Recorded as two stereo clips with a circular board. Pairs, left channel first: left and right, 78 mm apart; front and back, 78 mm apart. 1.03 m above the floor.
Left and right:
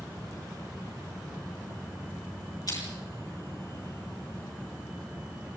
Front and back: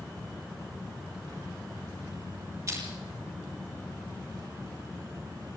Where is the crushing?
125° left, 8 m.